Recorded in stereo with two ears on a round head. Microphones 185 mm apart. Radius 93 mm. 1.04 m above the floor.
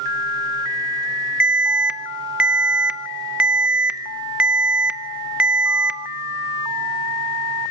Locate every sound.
1.4 s an alarm: 5° right (ahead or behind), 0.6 m